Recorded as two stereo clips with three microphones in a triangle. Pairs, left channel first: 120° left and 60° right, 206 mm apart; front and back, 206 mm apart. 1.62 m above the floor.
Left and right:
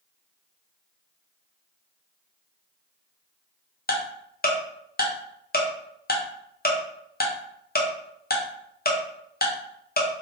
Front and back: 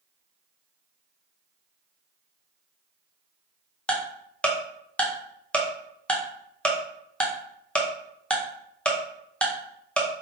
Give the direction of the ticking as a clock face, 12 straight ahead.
9 o'clock.